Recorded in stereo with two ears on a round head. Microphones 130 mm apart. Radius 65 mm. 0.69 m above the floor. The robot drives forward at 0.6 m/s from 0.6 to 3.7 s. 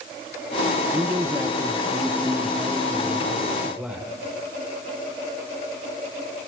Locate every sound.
0.9 s a man speaking: 20° right (ahead or behind), 0.7 m; by 4.1 s 5° right (ahead or behind), 2 m